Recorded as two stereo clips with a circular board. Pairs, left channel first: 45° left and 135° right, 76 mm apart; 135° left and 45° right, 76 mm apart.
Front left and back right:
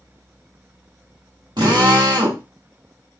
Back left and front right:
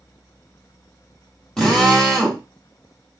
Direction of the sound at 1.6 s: 145° right.